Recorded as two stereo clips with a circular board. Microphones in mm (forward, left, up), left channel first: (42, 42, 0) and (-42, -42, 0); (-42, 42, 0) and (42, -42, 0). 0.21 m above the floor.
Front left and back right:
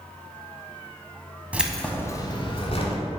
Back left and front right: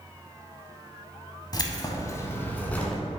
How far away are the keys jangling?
About 0.9 m.